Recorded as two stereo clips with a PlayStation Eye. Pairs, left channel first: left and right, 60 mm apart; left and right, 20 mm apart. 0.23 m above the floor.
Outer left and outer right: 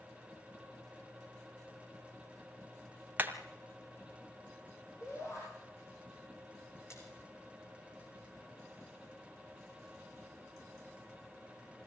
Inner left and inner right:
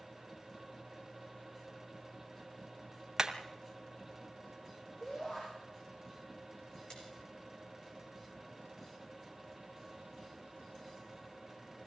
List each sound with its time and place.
3.2 s hammering: 30° right (ahead or behind), 2.0 m
5.0 s a shout: 50° left (ahead or behind), 7 m
6.9 s a splash: 50° left (ahead or behind), 6.5 m